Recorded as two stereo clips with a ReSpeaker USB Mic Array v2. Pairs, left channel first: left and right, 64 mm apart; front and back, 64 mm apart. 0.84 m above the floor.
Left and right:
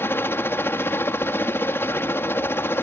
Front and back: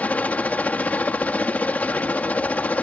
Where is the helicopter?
55° left.